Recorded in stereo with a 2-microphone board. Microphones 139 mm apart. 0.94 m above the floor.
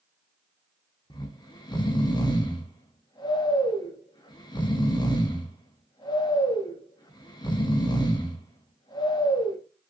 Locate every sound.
1.1 s snoring: 30° left (ahead or behind), 0.5 m